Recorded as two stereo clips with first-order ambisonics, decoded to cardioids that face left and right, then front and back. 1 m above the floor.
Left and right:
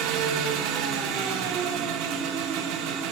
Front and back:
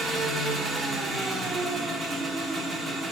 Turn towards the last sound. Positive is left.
turn(degrees=-110)